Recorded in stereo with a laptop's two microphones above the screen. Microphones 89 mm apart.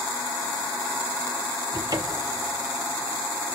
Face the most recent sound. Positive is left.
turn(degrees=-45)  # may be behind; listen again after turning